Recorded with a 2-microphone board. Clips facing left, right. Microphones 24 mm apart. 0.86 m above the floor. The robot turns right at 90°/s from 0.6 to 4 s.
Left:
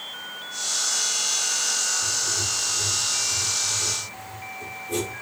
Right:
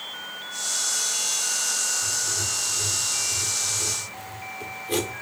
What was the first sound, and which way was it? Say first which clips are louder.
Writing: left 1 dB; 115° left.